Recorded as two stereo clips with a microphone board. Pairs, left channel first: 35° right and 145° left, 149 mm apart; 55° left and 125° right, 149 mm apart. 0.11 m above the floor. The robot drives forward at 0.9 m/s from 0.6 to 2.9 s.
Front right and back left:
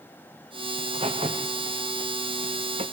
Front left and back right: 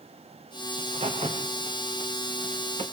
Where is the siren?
No siren in this recording.